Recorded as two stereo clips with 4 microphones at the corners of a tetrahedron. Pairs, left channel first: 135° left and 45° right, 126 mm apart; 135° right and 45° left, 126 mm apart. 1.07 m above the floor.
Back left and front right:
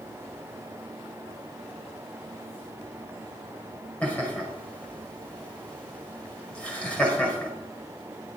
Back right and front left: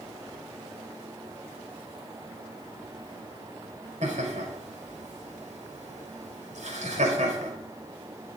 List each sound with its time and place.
4.0 s laughter: 55° left, 4.5 m